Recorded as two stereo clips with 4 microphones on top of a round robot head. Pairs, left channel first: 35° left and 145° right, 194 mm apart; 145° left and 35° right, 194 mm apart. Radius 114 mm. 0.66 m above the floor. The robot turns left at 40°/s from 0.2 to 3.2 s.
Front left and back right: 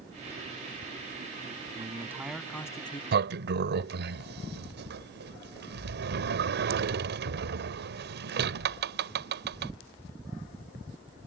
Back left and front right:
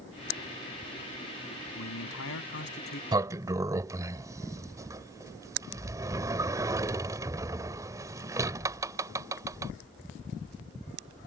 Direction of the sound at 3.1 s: 105° right.